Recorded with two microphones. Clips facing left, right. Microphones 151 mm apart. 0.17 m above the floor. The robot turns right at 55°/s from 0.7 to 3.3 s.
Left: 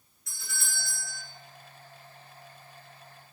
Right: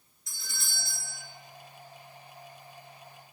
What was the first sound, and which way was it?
A doorbell, 60° left (ahead or behind).